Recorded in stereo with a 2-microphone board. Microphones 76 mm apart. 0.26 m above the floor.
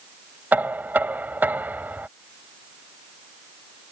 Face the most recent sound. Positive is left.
turn(degrees=-25)  # may be behind; listen again after turning